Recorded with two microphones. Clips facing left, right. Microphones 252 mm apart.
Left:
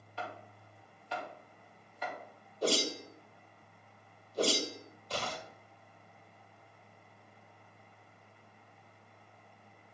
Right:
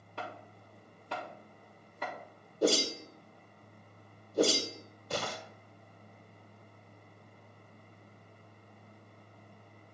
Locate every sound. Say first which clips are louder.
0.2 s chopping: even; 55° right (ahead or behind), 4.5 m
2.6 s a whoosh: right 4 dB; 50° right (ahead or behind), 1.5 m